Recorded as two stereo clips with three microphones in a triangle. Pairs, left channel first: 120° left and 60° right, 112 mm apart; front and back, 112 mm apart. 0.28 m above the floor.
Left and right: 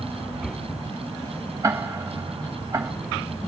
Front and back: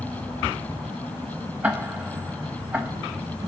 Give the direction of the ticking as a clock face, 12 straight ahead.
4 o'clock.